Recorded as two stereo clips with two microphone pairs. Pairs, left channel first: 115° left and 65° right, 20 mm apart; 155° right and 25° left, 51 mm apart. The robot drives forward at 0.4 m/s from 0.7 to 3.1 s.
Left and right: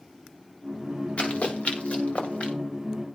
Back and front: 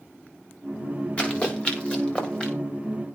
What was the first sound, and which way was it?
Running footsteps, 140° left.